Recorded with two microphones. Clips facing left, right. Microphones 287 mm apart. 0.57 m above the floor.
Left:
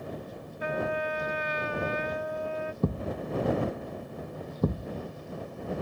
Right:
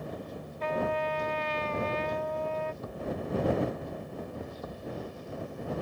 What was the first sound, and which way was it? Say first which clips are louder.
A trumpet: even; 10° left (ahead or behind).